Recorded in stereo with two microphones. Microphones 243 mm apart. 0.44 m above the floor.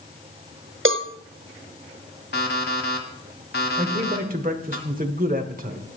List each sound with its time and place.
0.8 s a cowbell: 55° right (ahead or behind), 0.7 m
2.3 s an alarm clock: 45° left (ahead or behind), 1.5 m
3.8 s a man speaking: 35° right (ahead or behind), 1.2 m